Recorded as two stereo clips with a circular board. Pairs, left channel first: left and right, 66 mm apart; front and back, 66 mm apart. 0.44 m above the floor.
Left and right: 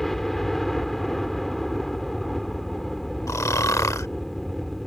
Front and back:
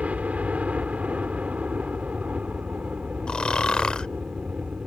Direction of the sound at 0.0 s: 170° left.